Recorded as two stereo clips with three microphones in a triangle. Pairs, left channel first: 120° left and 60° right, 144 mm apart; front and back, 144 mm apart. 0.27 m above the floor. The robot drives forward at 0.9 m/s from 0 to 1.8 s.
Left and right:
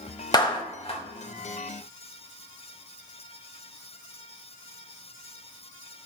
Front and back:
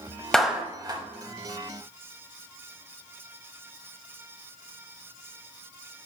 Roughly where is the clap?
Left.